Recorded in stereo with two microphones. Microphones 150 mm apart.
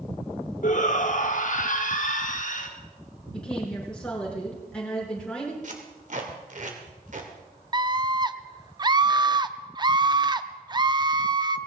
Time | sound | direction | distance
0.6 | a shout | 60° left (ahead or behind) | 1.2 m
3.3 | a woman speaking | 5° left (ahead or behind) | 6.5 m
5.6 | tape being pulled | 60° right (ahead or behind) | 2 m
7.7 | a scream | 30° right (ahead or behind) | 0.6 m